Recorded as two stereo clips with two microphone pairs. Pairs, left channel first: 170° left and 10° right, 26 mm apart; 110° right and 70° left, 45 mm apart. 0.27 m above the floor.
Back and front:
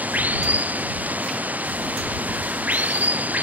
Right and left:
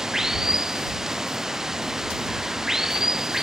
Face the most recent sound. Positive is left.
turn(degrees=-10)